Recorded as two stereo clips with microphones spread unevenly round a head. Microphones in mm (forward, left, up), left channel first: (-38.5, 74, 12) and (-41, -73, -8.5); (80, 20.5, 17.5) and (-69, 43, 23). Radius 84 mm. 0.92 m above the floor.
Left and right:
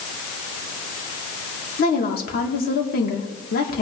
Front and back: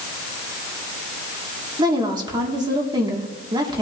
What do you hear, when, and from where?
1.8 s a woman speaking: 110° left, 2.5 m